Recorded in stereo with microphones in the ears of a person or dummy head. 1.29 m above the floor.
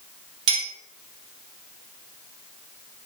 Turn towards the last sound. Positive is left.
turn(degrees=-70)  # may be behind; listen again after turning